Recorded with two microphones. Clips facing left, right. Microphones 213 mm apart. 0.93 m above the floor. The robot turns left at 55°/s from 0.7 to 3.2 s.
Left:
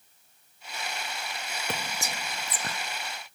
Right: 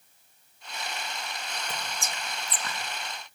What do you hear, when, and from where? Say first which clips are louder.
1.7 s whispering: left 6 dB; 75° left (ahead or behind), 1.0 m; by 2.8 s 30° left (ahead or behind), 1.0 m